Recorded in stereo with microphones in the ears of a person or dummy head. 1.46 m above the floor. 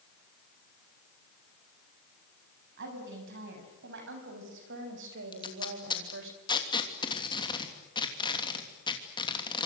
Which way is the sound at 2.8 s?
60° right (ahead or behind).